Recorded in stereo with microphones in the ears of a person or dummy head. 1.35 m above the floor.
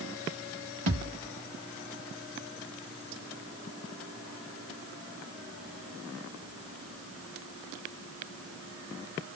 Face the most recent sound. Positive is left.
turn(degrees=-35)  # may be behind; listen again after turning